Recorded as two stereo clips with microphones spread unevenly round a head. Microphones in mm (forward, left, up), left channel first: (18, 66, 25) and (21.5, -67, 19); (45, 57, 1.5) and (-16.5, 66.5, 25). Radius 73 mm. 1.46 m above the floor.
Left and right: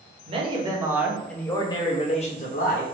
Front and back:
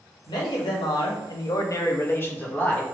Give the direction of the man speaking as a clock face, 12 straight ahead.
1 o'clock.